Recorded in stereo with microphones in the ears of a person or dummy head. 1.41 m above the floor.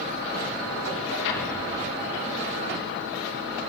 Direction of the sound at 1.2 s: 65° left (ahead or behind).